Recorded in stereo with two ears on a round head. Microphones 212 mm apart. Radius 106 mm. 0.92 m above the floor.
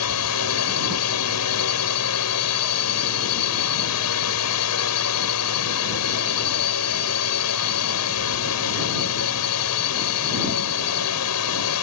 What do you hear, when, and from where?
0.0 s a drone: 70° left (ahead or behind)